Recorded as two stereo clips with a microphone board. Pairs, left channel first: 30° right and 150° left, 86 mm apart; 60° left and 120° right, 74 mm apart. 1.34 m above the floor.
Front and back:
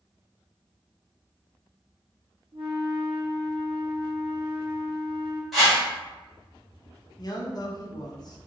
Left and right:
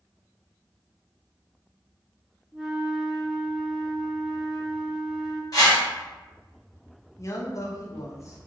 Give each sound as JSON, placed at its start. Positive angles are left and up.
{"t": 2.5, "sound": "a flute", "azimuth_deg": 155, "distance_m": 0.7}
{"t": 5.5, "sound": "a whoosh", "azimuth_deg": 60, "distance_m": 1.5}
{"t": 7.2, "sound": "a man speaking", "azimuth_deg": 10, "distance_m": 0.5}